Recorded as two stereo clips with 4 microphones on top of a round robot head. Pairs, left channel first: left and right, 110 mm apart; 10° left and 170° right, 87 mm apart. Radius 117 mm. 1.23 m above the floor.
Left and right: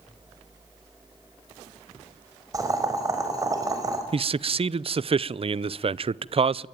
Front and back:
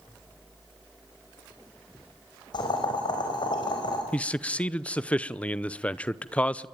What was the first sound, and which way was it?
Boiling, 30° right.